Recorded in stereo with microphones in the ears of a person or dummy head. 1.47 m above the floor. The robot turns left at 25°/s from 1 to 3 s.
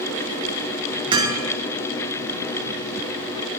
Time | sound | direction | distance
1.1 | hammering | 25° right (ahead or behind) | 4 m